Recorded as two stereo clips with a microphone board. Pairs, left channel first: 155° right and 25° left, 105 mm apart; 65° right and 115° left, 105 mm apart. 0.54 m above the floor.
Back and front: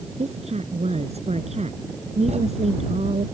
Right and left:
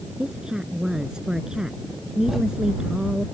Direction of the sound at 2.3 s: 25° left.